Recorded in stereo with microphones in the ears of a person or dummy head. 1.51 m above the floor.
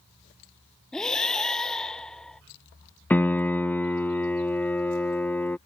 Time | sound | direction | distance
0.9 | breathing | 5° left (ahead or behind) | ?
3.1 | a piano | 10° left (ahead or behind) | ?